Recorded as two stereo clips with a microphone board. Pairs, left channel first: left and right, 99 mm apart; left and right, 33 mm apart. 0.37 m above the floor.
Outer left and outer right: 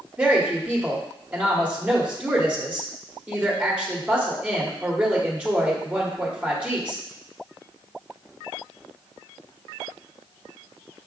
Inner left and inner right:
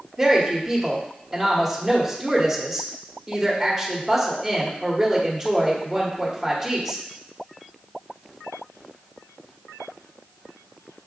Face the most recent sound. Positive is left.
turn(degrees=-10)  # may be behind; listen again after turning